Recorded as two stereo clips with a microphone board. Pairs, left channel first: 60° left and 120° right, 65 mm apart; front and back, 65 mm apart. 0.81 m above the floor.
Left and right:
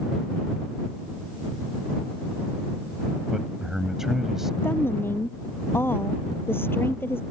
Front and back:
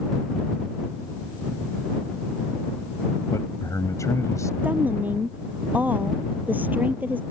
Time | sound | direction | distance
3.3 | a man speaking | 35° right | ?
4.6 | a woman speaking | 115° left | ?